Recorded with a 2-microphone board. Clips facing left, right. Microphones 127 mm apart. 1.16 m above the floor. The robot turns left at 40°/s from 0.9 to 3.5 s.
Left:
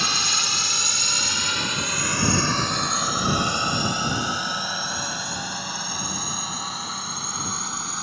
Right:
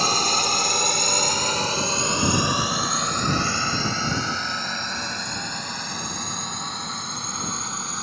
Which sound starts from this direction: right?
A drone, at 0.0 s.